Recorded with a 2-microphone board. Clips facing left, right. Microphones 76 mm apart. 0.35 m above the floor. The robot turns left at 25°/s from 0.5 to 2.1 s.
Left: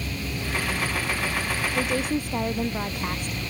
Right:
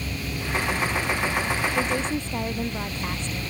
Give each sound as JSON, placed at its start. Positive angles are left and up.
{"t": 1.8, "sound": "a woman speaking", "side_deg": 0}